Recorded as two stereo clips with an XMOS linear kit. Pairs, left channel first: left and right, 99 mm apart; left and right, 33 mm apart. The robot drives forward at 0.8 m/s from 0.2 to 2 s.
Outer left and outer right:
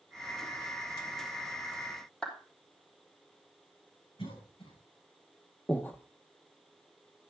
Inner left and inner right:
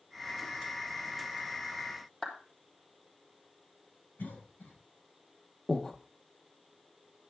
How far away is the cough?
About 6.5 m.